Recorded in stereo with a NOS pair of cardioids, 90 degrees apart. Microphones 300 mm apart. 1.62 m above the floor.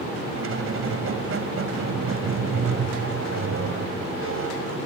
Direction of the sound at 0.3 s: 45° right.